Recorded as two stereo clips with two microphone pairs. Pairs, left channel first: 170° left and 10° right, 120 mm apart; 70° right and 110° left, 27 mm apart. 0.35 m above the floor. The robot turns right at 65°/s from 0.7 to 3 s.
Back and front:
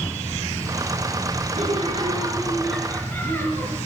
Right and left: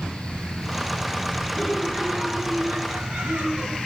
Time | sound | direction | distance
1.5 | laughter | 5° left | 4.5 m